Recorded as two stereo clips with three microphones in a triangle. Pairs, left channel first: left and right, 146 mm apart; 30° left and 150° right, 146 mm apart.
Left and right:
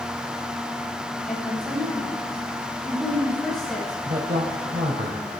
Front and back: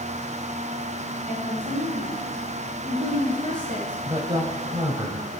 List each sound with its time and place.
1.3 s a woman speaking: straight behind, 8.5 m
4.0 s a woman speaking: 95° right, 2.5 m